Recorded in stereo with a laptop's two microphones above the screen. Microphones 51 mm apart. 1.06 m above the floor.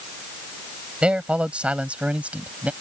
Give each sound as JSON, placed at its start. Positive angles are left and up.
{"t": 1.0, "sound": "a man speaking", "side_deg": -20}